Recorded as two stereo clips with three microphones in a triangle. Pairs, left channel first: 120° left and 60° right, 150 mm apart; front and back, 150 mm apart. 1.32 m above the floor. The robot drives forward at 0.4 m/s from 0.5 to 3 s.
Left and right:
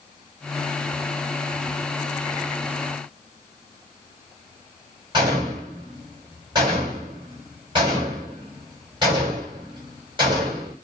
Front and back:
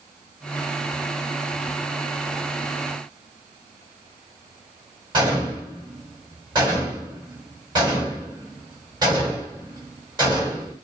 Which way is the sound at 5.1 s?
115° right.